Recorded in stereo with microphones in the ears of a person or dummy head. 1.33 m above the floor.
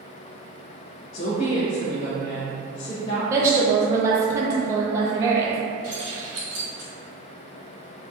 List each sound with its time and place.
1.1 s a woman speaking: 40° left (ahead or behind), 0.6 m
3.3 s a woman speaking: 20° right (ahead or behind), 0.7 m
5.8 s keys jangling: 40° right (ahead or behind), 1.0 m